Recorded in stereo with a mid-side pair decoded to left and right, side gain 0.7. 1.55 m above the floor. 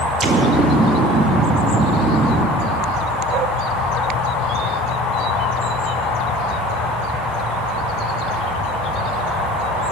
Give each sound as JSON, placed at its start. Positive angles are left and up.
{"t": 0.2, "sound": "an explosion", "azimuth_deg": -25, "distance_m": 0.5}